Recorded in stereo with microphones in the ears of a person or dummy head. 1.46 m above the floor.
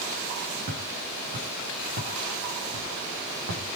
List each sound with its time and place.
0.7 s footsteps: 55° right (ahead or behind), 5 m; by 3.7 s 70° right (ahead or behind), 4.5 m